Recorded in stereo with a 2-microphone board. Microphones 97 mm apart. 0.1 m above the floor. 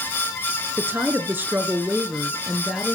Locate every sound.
0.8 s a woman speaking: 25° right (ahead or behind), 1.3 m; by 2.9 s centre (ahead or behind), 1.7 m